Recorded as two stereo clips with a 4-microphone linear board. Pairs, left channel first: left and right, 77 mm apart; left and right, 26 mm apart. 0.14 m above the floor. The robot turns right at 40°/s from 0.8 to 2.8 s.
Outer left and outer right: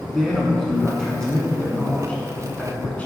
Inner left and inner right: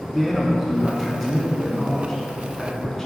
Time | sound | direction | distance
0.1 | a man speaking | centre (ahead or behind) | 1.2 m